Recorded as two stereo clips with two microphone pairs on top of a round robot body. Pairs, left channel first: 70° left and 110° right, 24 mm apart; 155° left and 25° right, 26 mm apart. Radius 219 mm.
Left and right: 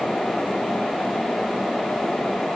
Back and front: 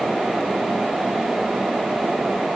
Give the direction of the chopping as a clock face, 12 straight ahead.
I don't hear chopping.